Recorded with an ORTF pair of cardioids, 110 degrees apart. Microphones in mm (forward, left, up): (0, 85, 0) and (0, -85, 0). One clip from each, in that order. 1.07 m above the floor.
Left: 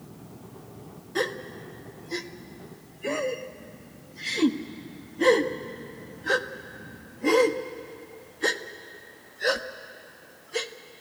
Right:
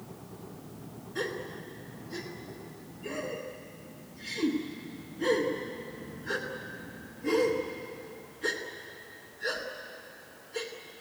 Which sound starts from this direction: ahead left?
A gasp, at 1.1 s.